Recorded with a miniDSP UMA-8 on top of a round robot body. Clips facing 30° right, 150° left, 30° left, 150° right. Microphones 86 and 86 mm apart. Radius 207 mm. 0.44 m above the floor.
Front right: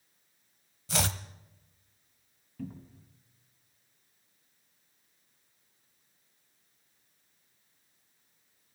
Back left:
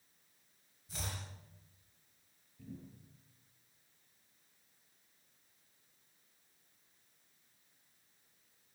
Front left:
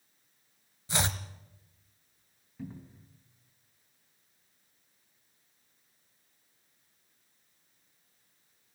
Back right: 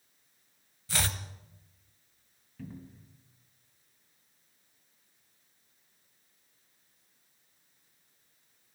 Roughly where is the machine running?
I don't hear a machine running.